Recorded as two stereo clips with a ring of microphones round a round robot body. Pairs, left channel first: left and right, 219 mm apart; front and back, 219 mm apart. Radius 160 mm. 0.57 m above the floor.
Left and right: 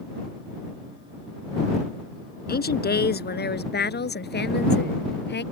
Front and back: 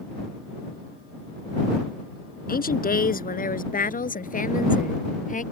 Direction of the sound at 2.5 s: 45° left.